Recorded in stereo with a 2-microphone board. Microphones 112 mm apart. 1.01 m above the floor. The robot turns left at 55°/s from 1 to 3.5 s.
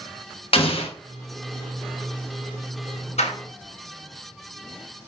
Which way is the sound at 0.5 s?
55° left (ahead or behind).